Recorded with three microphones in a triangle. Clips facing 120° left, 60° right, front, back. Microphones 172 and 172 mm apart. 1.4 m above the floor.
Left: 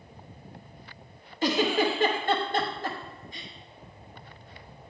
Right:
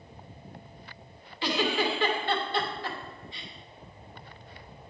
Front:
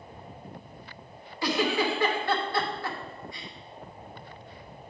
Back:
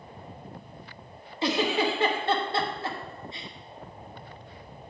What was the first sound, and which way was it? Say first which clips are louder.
A giggle: left 3 dB, back 1 dB; 125° left.